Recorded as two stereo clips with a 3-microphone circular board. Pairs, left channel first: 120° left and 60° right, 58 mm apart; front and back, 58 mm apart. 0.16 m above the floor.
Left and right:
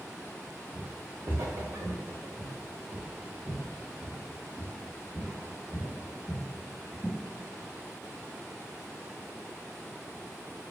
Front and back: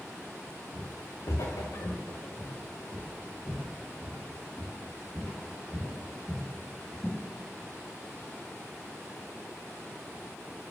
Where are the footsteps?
10° left, 0.9 m; by 7.2 s 80° right, 5 m.